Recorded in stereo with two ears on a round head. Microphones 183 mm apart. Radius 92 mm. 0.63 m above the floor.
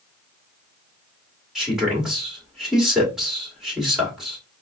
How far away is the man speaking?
About 1.9 m.